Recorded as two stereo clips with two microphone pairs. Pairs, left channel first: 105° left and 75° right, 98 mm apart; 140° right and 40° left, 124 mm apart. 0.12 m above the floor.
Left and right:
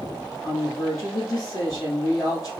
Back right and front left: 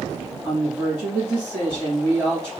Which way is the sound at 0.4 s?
100° left.